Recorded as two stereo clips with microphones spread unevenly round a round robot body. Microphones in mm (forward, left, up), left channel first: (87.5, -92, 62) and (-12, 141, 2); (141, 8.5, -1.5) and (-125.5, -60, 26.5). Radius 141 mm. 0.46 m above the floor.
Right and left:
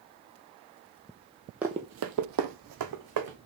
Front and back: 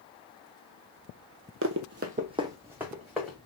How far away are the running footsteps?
About 0.6 m.